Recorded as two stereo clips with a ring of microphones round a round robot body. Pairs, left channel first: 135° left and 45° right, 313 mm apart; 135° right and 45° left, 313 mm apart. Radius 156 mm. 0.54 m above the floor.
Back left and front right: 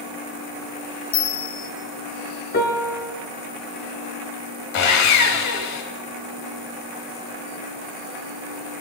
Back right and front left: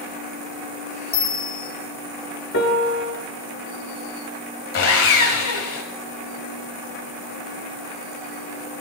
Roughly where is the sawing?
Behind.